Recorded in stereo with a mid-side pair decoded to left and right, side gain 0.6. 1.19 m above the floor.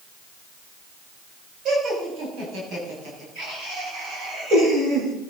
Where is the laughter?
60° right, 5.5 m; by 5.1 s 65° right, 10.5 m.